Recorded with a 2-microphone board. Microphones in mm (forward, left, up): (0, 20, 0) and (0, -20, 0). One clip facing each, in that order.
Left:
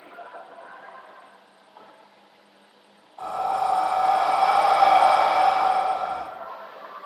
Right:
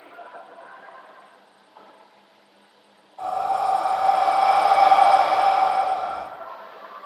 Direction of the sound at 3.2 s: 10° left (ahead or behind).